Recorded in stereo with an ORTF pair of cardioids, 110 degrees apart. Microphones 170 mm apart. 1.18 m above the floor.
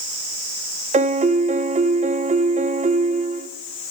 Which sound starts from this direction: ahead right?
A piano, at 0.9 s.